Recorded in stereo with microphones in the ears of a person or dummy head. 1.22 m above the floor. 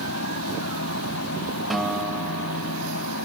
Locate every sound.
0.0 s a fan: 85° left
1.7 s a guitar: centre (ahead or behind)